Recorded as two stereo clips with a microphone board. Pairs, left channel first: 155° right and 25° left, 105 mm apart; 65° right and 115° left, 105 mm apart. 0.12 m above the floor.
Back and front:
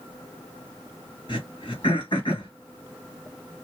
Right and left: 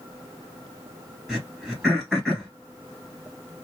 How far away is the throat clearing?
About 2.5 m.